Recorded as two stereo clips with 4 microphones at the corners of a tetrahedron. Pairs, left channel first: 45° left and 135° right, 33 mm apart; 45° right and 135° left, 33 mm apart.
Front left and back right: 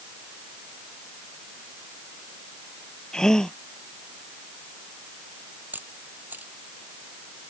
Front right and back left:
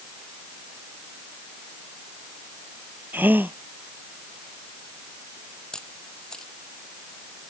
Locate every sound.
3.1 s a gasp: 115° left
5.7 s a camera shutter: 115° right